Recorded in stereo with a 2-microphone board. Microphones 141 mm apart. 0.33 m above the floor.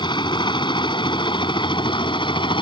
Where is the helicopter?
35° left (ahead or behind).